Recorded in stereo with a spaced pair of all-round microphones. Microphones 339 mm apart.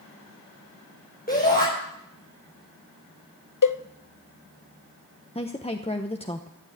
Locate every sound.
1.3 s a shout: 25° left (ahead or behind), 5 m
3.6 s a cowbell: 65° left (ahead or behind), 0.6 m
5.3 s a woman speaking: 20° left (ahead or behind), 0.8 m